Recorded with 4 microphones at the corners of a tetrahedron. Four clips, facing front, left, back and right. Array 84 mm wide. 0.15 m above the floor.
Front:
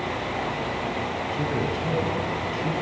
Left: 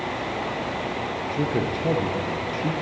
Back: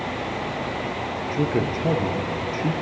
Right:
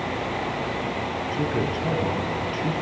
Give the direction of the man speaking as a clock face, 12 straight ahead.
7 o'clock.